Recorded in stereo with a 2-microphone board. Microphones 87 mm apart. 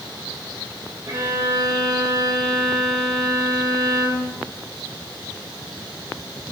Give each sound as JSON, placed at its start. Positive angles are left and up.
{"t": 1.1, "sound": "a violin", "side_deg": -50, "distance_m": 2.0}